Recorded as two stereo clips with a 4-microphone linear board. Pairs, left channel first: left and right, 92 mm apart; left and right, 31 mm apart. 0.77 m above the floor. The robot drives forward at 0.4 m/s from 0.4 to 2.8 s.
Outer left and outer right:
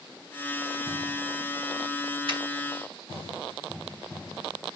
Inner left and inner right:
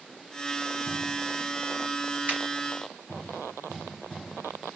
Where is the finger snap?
65° right (ahead or behind), 2.5 m.